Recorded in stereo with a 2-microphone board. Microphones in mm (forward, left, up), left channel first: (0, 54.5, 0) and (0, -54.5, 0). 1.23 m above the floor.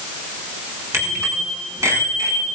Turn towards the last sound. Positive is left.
turn(degrees=-35)  # may be behind; listen again after turning